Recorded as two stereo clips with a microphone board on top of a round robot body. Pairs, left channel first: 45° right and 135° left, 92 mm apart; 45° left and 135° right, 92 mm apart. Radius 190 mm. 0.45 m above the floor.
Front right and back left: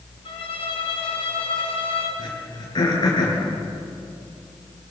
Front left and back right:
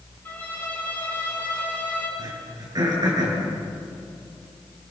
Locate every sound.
0.2 s a violin: 25° right, 6 m
2.2 s throat clearing: 90° right, 7 m